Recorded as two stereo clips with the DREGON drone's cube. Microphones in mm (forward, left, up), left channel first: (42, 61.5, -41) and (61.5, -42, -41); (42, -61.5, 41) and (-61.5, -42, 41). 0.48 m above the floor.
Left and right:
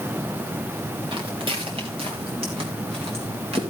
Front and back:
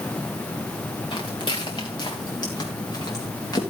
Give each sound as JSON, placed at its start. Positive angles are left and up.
{"t": 1.1, "sound": "footsteps", "azimuth_deg": -45, "distance_m": 2.5}